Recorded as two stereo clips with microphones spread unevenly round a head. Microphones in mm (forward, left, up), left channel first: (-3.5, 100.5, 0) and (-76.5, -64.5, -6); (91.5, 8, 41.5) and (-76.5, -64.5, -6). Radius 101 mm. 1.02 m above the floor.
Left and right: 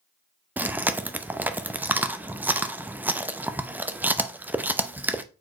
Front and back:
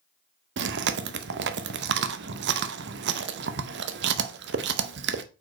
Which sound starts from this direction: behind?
Chewing, at 0.6 s.